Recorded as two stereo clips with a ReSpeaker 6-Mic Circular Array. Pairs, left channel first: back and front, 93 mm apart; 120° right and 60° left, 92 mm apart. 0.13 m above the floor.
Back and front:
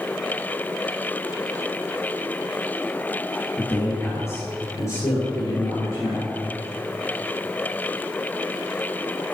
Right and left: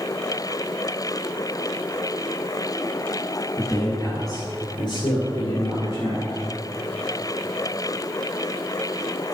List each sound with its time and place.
3.6 s a man speaking: 140° right, 1.6 m; by 6.3 s 130° right, 3 m